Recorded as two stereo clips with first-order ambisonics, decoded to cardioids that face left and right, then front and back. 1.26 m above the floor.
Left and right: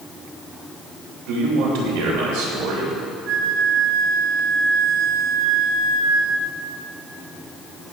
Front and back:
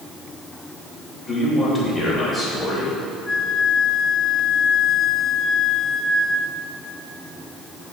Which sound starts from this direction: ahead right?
A flute, at 3.3 s.